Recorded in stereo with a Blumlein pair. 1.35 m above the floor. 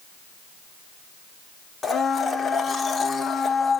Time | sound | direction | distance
1.8 | a blender | 15° left | 0.6 m